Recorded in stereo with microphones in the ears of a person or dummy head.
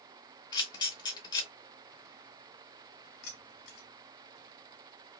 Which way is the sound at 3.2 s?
50° left (ahead or behind).